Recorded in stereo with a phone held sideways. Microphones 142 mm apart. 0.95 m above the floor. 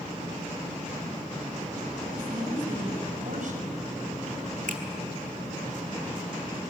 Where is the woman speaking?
60° right (ahead or behind), 7 m.